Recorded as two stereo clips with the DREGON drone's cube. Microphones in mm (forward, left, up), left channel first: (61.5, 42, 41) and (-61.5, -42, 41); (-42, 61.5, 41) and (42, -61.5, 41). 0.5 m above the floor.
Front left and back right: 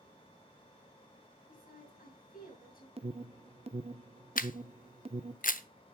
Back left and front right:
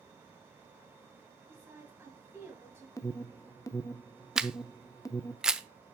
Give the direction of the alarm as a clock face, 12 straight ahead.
6 o'clock.